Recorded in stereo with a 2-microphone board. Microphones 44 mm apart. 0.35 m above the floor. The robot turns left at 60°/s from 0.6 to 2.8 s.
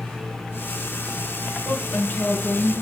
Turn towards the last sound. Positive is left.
turn(degrees=25)